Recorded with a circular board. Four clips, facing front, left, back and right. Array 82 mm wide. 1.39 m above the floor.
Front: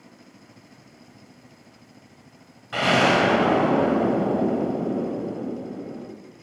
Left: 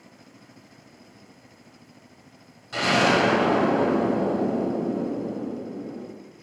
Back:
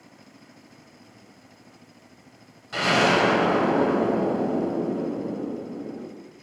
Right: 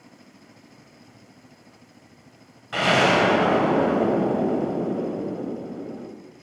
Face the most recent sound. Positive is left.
turn(degrees=-60)